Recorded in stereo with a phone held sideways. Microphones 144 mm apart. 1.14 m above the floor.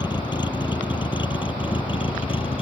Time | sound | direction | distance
0.0 | a vehicle | 30° left (ahead or behind) | ?